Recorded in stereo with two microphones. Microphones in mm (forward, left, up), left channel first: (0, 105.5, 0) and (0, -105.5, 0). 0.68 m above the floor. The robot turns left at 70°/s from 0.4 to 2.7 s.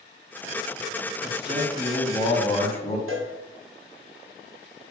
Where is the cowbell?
80° right, 0.6 m.